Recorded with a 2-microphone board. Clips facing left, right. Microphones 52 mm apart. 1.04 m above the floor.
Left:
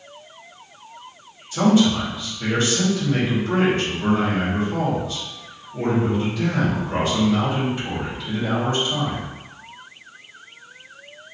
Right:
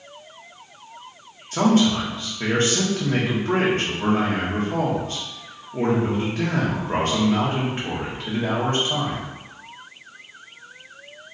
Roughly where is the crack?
No crack in this recording.